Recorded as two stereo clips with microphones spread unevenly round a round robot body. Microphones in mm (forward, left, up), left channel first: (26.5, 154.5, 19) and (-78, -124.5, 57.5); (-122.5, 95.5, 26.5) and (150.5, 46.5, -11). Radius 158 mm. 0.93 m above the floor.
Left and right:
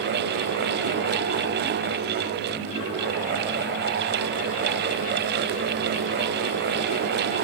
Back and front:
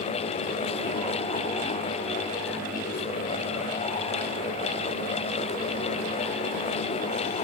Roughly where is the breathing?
No breathing in this recording.